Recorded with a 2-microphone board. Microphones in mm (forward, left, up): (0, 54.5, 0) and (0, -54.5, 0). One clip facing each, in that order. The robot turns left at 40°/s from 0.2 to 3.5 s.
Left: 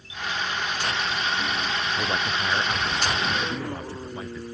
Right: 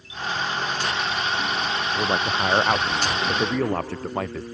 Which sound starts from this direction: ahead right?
A man speaking, at 1.9 s.